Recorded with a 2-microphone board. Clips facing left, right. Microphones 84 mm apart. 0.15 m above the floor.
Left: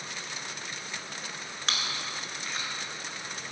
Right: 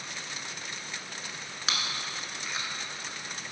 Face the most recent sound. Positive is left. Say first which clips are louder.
# even
turn(degrees=-5)  # may be behind; listen again after turning